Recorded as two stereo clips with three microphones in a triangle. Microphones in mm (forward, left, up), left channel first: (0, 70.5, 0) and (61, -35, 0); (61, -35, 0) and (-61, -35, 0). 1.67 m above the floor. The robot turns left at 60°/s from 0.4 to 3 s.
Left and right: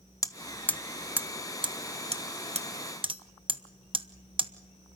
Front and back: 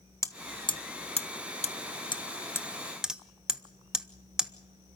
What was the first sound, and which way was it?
Hammering, 60° left.